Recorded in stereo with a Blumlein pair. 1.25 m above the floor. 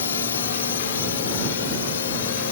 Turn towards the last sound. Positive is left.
turn(degrees=60)